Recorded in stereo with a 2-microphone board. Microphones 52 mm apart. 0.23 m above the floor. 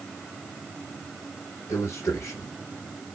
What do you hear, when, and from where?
1.7 s a man speaking: 65° left (ahead or behind), 3 m